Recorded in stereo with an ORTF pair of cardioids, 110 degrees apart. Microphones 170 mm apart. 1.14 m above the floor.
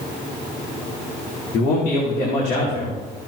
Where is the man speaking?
70° left, 3.5 m.